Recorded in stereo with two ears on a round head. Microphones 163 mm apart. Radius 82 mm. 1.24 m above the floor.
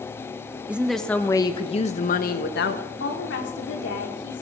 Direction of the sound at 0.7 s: 5° right (ahead or behind).